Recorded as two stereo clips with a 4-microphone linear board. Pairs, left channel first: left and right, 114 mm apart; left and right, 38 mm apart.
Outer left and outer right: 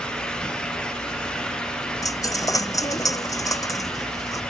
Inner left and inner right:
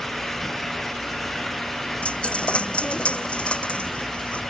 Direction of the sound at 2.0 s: 30° left (ahead or behind).